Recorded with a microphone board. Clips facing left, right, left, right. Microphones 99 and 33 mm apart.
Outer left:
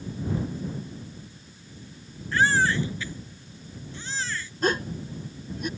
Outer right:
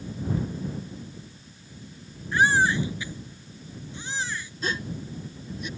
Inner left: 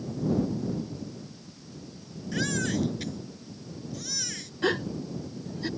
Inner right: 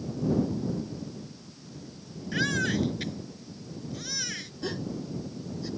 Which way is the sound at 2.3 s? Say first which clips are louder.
Outer right 1 dB, inner right 2 dB; 15° right (ahead or behind).